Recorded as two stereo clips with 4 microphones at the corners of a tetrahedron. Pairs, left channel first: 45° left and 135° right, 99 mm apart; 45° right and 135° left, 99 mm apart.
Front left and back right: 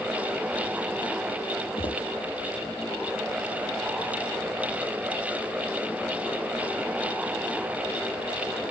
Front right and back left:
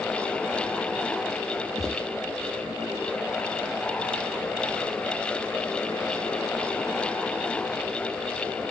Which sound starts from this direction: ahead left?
Footsteps, at 1.8 s.